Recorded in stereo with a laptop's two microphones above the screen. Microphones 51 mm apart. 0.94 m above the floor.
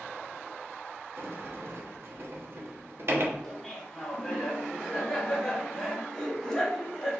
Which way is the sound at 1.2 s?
55° right (ahead or behind).